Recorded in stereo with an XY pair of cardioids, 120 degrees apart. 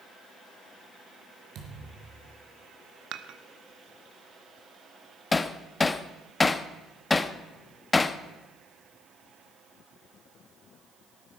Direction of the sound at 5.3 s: 20° left.